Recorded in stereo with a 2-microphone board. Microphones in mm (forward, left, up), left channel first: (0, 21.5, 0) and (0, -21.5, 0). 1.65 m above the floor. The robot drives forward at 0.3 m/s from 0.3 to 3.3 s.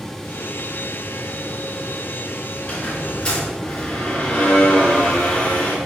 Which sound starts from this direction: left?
A squeak, at 2.6 s.